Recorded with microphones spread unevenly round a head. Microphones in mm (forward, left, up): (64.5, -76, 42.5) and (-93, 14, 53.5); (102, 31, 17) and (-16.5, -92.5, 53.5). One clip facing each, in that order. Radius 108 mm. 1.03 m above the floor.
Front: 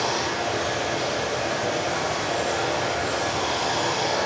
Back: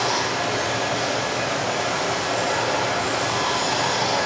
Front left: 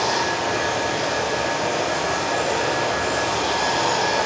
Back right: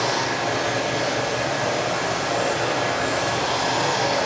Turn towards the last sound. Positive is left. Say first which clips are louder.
# back 2 dB, front left 1 dB
turn(degrees=140)